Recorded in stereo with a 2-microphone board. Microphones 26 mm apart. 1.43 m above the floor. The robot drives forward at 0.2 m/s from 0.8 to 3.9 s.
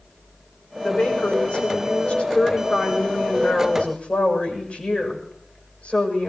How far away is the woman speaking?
About 6 m.